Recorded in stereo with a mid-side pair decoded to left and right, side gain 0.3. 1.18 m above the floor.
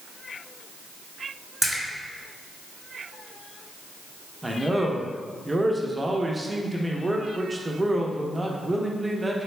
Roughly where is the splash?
Ahead.